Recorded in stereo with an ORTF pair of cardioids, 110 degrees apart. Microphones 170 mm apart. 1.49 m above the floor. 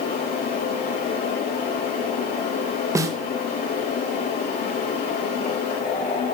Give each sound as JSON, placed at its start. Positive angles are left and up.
{"t": 0.0, "sound": "a fan", "azimuth_deg": 60, "distance_m": 5.5}
{"t": 3.0, "sound": "a snare drum", "azimuth_deg": -15, "distance_m": 1.6}